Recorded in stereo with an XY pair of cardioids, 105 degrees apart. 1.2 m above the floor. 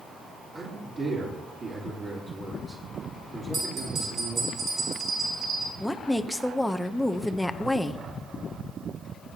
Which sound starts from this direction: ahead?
A woman speaking, at 5.8 s.